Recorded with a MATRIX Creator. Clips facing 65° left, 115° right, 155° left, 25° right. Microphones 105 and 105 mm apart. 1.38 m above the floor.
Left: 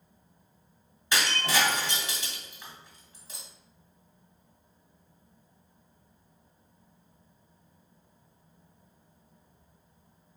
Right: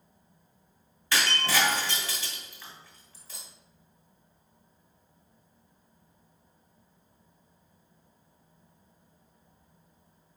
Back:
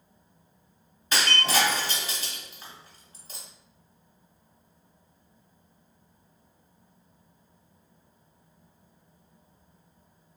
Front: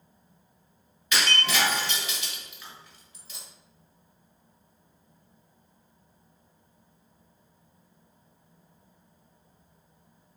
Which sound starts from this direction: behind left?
Breaking glass, at 1.1 s.